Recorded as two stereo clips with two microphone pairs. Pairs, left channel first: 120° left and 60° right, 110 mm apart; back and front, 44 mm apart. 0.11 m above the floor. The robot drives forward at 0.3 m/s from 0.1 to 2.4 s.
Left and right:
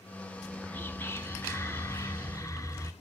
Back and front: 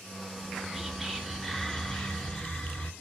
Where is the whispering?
60° left, 1.1 m; by 2.9 s 135° left, 1.2 m.